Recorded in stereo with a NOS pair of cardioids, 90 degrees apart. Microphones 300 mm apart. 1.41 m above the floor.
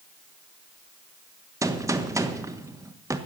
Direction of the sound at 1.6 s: 10° right.